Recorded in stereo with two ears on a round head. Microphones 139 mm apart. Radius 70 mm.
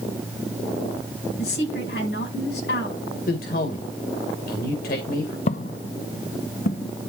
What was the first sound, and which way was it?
A woman speaking, 70° left (ahead or behind).